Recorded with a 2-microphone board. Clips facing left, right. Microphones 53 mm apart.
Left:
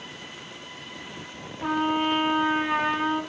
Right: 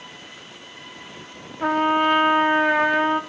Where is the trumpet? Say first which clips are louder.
Right 5 dB; 60° right (ahead or behind), 0.6 m.